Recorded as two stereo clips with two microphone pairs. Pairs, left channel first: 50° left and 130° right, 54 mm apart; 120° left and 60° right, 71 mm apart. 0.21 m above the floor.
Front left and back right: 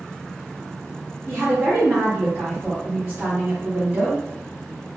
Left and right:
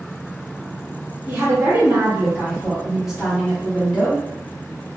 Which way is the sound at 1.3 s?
95° right.